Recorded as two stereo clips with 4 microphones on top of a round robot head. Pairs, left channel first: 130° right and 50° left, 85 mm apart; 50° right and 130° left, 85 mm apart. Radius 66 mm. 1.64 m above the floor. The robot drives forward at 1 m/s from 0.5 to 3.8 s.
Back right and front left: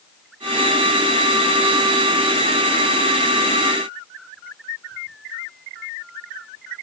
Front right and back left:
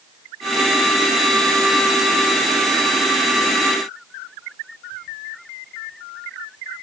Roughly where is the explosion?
I don't hear an explosion.